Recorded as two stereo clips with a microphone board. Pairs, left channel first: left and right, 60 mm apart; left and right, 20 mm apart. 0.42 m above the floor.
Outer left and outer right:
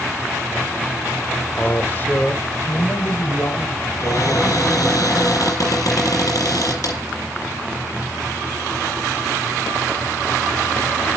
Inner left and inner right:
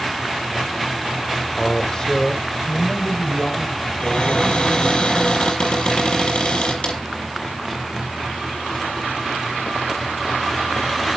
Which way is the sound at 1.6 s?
25° left (ahead or behind).